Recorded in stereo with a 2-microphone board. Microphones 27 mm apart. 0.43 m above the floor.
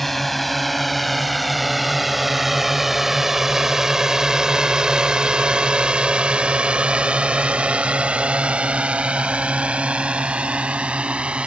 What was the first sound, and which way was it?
A drone, 5° left (ahead or behind).